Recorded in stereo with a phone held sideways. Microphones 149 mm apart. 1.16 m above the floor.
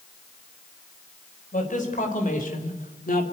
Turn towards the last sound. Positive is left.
turn(degrees=70)  # may be behind; listen again after turning